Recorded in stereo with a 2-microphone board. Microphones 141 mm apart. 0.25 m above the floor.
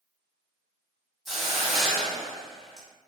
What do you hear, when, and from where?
1.2 s a hiss: centre (ahead or behind), 1.1 m